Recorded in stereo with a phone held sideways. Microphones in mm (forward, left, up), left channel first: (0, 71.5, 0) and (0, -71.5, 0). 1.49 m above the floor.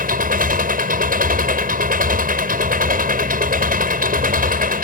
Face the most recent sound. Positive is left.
turn(degrees=-90)